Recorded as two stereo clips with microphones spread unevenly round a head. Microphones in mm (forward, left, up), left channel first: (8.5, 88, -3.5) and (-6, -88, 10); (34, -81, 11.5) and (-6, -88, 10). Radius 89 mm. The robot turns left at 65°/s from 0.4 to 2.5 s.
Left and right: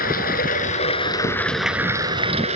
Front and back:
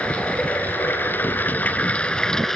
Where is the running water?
70° left, 2.0 m; by 2.5 s 70° right, 2.0 m.